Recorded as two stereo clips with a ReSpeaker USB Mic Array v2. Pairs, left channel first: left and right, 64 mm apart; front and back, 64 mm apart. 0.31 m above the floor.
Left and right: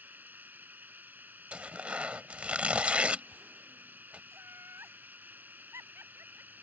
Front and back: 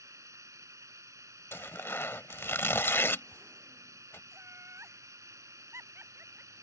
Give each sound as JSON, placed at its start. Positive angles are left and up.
{"t": 0.0, "sound": "running water", "azimuth_deg": -150}
{"t": 1.5, "sound": "tearing paper", "azimuth_deg": -30}
{"t": 4.3, "sound": "laughter", "azimuth_deg": -135}